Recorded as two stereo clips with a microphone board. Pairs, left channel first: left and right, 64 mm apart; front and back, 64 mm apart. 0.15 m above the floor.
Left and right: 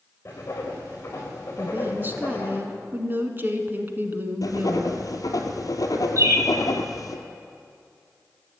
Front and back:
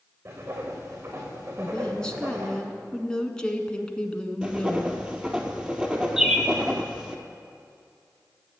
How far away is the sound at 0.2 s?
About 4 m.